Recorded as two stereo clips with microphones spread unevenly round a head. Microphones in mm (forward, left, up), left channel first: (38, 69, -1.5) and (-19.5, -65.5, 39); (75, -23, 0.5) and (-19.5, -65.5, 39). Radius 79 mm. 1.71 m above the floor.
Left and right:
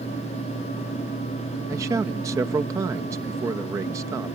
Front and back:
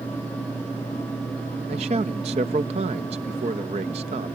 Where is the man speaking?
Straight behind.